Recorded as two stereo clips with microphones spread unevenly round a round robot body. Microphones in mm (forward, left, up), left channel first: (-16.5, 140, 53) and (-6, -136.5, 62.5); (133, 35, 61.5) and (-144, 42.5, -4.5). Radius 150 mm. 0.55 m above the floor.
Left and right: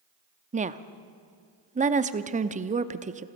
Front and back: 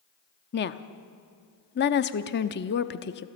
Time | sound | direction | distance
0.5 | a woman speaking | 45° right | 0.8 m